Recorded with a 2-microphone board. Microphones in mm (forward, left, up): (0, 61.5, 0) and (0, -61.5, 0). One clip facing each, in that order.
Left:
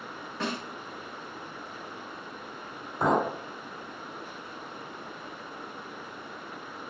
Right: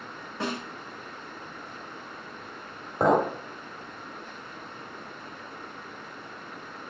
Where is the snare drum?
15° right (ahead or behind), 1.3 m.